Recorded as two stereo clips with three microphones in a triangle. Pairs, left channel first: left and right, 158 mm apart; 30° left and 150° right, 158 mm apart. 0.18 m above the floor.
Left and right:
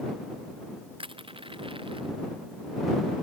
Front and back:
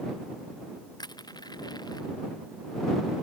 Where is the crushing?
35° right.